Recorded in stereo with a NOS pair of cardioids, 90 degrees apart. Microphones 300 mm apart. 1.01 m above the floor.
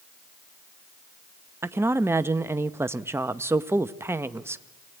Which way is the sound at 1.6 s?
10° right.